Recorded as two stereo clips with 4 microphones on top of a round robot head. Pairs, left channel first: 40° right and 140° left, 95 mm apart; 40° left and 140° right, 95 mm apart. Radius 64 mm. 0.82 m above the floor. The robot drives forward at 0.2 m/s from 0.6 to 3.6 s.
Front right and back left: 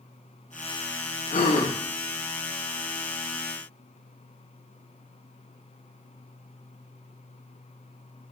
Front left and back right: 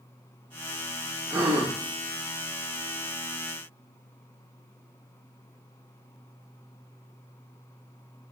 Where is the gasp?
65° right, 0.6 m; by 1.8 s 75° right, 0.6 m.